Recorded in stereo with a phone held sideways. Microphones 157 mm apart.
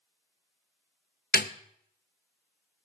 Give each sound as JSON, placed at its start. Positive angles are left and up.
{"t": 1.3, "sound": "a snare drum", "side_deg": 70, "distance_m": 0.6}